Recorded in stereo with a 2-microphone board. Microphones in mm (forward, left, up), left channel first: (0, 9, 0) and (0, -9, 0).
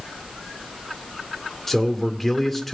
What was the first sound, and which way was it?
A man speaking, 10° left (ahead or behind).